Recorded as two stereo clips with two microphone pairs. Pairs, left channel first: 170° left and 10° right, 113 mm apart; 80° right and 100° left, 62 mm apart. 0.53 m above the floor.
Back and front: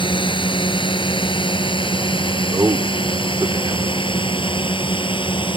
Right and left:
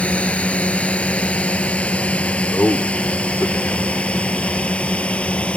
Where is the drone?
150° right.